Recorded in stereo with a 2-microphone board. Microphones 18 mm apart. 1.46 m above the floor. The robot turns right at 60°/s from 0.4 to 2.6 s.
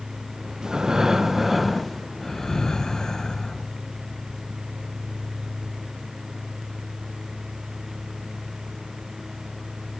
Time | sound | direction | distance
0.6 | breathing | 70° right | 0.6 m